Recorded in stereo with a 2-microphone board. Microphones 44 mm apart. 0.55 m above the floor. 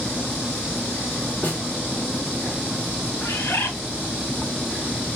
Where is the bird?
70° left (ahead or behind), 0.7 m.